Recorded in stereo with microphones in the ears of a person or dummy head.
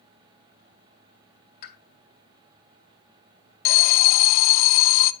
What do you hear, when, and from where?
1.6 s a pop: 55° left (ahead or behind), 2.5 m
3.6 s an alarm: 50° left (ahead or behind), 0.5 m